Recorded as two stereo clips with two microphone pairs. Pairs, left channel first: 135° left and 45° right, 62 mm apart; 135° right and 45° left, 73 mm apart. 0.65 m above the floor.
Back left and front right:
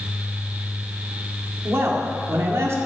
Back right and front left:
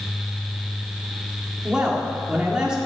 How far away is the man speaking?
About 1.8 m.